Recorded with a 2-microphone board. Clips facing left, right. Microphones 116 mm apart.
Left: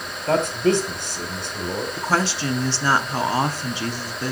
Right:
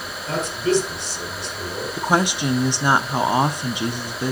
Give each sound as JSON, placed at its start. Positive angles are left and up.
{"t": 0.3, "sound": "a man speaking", "side_deg": 55, "distance_m": 2.0}
{"t": 2.0, "sound": "a woman speaking", "side_deg": -15, "distance_m": 0.6}